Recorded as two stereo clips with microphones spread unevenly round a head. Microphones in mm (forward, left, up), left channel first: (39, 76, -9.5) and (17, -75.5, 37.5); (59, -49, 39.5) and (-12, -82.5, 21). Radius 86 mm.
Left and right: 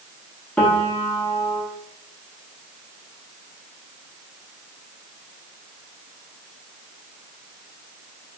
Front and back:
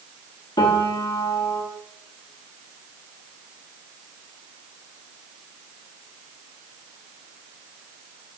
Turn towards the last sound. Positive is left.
turn(degrees=0)